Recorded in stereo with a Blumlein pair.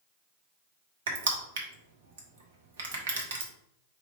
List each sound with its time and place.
1.1 s crushing: 60° right, 1.1 m